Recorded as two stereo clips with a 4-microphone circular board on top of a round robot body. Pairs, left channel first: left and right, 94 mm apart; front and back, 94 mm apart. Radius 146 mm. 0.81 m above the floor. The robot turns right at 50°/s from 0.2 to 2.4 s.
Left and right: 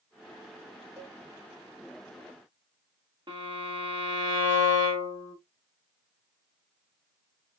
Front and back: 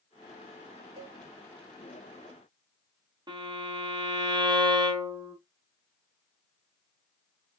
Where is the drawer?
No drawer in this recording.